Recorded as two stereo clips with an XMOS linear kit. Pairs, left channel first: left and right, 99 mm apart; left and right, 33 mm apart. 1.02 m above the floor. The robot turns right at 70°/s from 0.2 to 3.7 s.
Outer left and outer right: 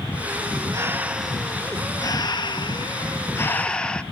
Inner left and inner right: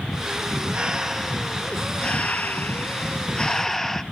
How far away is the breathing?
About 0.6 m.